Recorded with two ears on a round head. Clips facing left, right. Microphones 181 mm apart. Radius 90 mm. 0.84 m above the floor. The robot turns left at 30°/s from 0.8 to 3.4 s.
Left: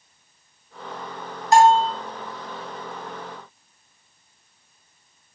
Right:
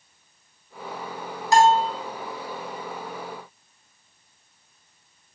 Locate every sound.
1.5 s a bell: 70° right (ahead or behind), 3 m; by 1.9 s 80° right, 3 m